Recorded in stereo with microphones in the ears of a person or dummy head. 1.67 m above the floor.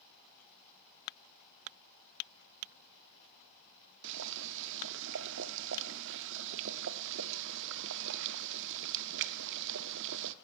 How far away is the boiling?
About 0.5 m.